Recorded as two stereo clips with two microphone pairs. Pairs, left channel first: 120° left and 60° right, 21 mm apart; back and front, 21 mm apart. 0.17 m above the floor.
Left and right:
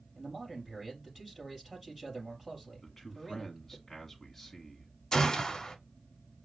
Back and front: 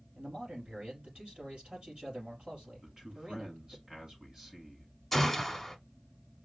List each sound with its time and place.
0.1 s a man speaking: 10° left, 3.5 m
2.8 s a man speaking: 40° left, 1.6 m
5.1 s a gunshot: 100° left, 0.7 m